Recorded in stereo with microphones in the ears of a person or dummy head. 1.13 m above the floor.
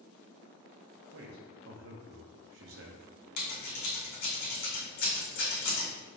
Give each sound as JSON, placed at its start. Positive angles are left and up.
{"t": 1.1, "sound": "a man speaking", "side_deg": -65, "distance_m": 0.6}
{"t": 3.4, "sound": "scissors", "side_deg": 55, "distance_m": 1.2}